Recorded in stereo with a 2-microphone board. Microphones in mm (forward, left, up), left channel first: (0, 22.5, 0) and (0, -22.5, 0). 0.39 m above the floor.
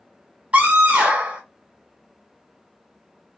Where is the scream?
30° right (ahead or behind), 1.3 m.